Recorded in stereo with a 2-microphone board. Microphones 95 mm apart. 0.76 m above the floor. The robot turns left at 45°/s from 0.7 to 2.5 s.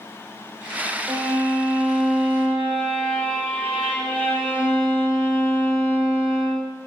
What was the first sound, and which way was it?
A violin, 135° right.